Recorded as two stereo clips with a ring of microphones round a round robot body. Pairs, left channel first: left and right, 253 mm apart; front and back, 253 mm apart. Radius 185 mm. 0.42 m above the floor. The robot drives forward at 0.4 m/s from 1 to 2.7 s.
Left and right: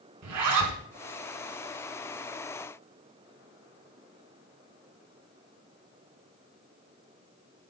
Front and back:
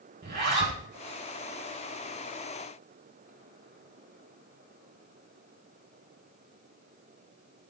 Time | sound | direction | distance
0.2 | a zipper | 110° right | 1.2 m